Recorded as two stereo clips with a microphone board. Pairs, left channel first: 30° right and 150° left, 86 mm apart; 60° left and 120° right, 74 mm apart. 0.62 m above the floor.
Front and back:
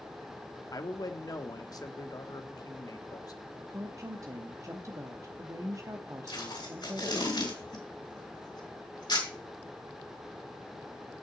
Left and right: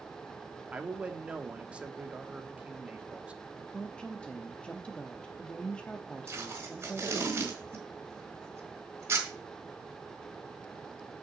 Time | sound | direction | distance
0.7 | a man speaking | 50° right | 1.0 m
3.7 | a woman speaking | 130° left | 0.7 m
6.3 | tape being pulled | 65° right | 4 m